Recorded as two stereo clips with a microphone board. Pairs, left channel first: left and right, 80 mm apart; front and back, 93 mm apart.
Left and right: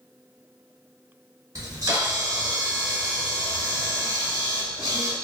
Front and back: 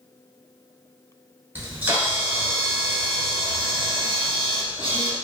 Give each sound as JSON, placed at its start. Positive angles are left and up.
{"t": 1.6, "sound": "a camera shutter", "azimuth_deg": -120, "distance_m": 0.9}